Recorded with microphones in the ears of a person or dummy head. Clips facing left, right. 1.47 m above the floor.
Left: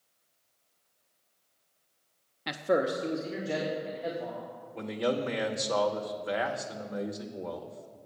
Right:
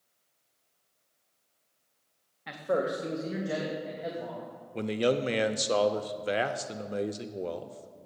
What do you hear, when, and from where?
2.5 s a man speaking: 55° left (ahead or behind), 0.6 m; by 4.4 s 15° right (ahead or behind), 3 m
4.7 s a man speaking: 35° right (ahead or behind), 0.5 m